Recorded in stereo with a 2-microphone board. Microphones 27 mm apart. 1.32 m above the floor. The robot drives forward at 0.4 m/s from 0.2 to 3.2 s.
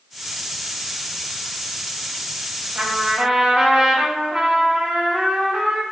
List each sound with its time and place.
2.8 s a trumpet: 45° right (ahead or behind), 0.7 m; by 5.8 s 35° right (ahead or behind), 0.9 m